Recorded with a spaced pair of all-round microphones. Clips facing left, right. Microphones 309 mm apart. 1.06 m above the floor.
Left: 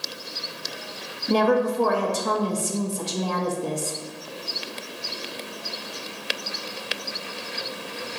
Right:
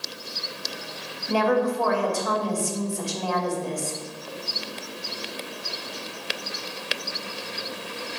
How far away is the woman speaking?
About 0.6 m.